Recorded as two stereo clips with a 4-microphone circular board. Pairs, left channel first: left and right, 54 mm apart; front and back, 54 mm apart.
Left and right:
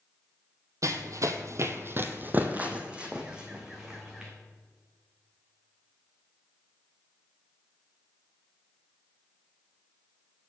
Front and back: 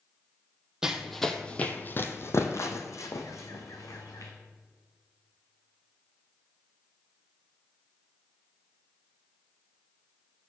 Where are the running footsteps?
100° right, 0.8 m; by 4.3 s 5° right, 2 m.